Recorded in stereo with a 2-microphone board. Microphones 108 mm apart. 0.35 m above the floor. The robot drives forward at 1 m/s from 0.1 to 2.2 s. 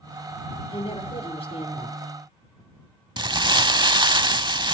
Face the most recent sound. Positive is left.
turn(degrees=-45)  # may be behind; listen again after turning